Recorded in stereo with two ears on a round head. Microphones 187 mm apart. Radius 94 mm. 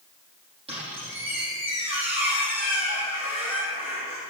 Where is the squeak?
30° right (ahead or behind), 6 m.